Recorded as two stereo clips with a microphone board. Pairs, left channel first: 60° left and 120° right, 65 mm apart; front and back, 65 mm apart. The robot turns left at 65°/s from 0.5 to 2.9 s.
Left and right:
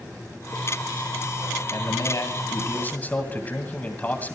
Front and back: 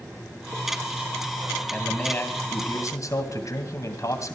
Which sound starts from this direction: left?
A man speaking, at 1.7 s.